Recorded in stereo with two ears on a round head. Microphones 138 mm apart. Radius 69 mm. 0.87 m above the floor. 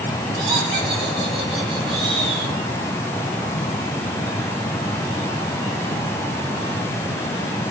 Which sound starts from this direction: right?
Laughter, at 0.3 s.